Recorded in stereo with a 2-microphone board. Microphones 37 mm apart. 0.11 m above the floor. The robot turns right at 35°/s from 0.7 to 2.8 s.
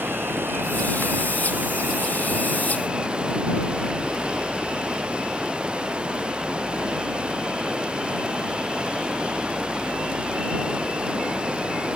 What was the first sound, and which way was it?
Running water, 100° right.